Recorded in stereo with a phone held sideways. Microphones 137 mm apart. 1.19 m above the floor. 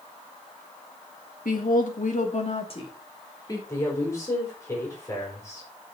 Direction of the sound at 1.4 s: 85° left.